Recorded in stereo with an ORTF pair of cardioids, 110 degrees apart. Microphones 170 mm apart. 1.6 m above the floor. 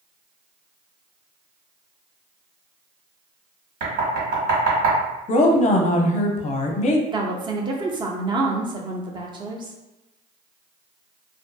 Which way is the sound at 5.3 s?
45° left.